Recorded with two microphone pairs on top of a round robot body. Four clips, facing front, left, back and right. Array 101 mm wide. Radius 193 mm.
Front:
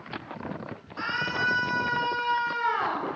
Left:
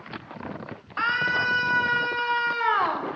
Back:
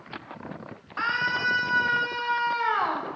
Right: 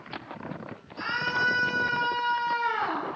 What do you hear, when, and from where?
1.0 s a scream: 120° left, 5 m; by 3.1 s 115° left, 4 m